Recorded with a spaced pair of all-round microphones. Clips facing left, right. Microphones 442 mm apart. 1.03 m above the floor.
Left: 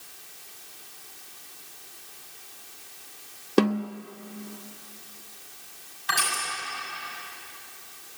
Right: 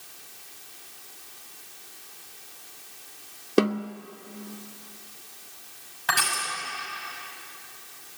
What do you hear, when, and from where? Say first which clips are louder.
3.6 s a snare drum: even; 5° left (ahead or behind), 0.8 m
6.1 s crushing: right 2 dB; 85° right, 5.5 m